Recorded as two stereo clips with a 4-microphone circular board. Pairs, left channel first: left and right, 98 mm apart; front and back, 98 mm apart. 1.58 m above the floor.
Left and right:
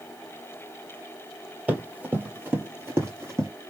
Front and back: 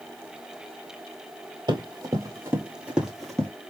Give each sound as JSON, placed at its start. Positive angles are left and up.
{"t": 1.7, "sound": "running footsteps", "azimuth_deg": -160, "distance_m": 2.0}